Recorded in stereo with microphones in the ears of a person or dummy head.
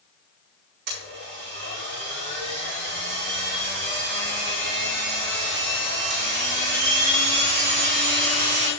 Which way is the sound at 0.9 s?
45° right (ahead or behind).